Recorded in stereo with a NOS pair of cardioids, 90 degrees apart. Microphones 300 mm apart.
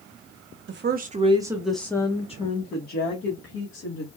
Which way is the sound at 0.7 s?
40° right.